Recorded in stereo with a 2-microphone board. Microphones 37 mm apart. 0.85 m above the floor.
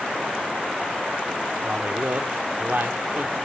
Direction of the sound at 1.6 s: 65° right (ahead or behind).